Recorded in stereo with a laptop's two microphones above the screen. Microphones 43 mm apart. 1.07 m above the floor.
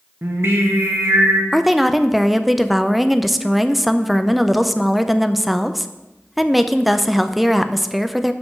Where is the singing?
65° right (ahead or behind), 1.1 m.